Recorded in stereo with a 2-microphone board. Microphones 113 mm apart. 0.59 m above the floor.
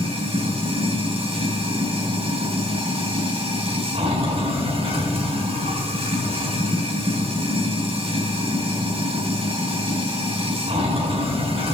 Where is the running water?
60° right (ahead or behind), 3.5 m.